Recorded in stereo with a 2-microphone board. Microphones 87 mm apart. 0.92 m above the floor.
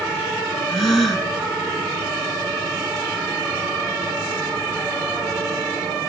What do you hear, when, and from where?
0.7 s a gasp: centre (ahead or behind), 4 m